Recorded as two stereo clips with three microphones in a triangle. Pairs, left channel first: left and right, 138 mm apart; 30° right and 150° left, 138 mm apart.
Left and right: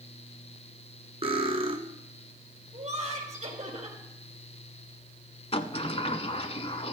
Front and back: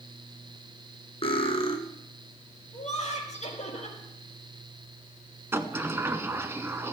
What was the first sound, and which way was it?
Cutlery clinking, 60° right.